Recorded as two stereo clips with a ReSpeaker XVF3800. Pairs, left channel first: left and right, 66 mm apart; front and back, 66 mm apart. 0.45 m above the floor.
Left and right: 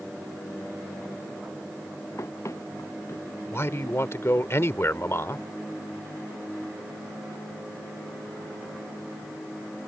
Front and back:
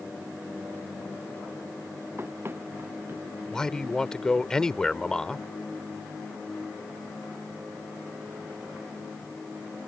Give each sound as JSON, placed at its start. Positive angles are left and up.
{"t": 2.2, "sound": "running footsteps", "azimuth_deg": 130}
{"t": 3.5, "sound": "a man speaking", "azimuth_deg": 75}